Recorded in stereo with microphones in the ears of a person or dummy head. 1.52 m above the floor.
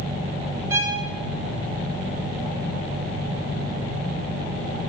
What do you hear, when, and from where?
0.7 s a violin: 20° right (ahead or behind), 3.5 m